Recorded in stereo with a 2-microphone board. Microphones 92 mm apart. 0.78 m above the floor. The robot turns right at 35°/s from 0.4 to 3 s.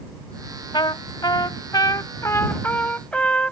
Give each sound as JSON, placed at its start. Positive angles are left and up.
{"t": 0.7, "sound": "a trumpet", "azimuth_deg": 85}